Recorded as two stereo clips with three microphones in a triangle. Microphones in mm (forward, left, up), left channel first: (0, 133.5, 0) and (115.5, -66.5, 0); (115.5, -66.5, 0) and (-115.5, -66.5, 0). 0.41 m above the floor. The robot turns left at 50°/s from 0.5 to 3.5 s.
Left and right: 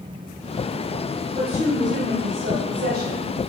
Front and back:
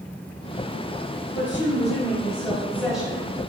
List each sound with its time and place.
1.3 s a woman speaking: 10° right, 1.3 m; by 3.3 s 110° right, 1.3 m